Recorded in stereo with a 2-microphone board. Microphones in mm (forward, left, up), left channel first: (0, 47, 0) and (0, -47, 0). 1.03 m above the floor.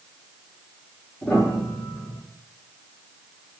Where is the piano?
20° left (ahead or behind), 0.9 m.